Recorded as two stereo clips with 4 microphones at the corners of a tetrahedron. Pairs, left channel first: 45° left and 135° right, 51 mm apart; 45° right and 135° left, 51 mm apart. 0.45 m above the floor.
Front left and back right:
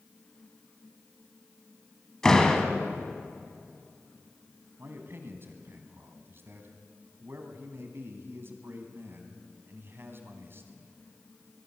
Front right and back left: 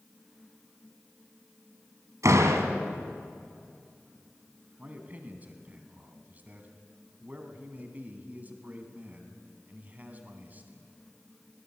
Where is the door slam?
125° left, 2 m.